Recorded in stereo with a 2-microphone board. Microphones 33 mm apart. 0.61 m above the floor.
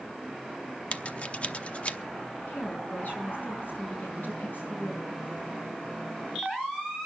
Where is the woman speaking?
65° left (ahead or behind), 6.5 m.